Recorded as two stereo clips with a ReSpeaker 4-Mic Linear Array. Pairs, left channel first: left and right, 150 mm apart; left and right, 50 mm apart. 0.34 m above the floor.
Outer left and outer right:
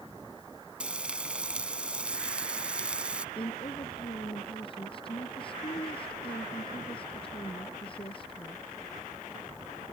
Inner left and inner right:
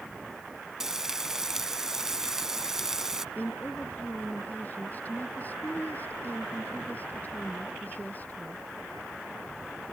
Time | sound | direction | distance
0.8 | frying | 10° right (ahead or behind) | ?
3.4 | a woman speaking | 35° left (ahead or behind) | ?